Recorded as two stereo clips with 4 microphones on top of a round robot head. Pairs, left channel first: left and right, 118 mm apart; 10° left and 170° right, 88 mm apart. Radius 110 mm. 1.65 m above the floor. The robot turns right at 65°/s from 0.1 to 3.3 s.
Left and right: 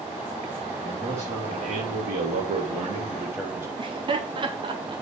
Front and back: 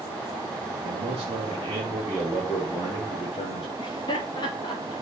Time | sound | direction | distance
0.8 | a man speaking | straight behind | 4 m
3.8 | laughter | 40° right | 3 m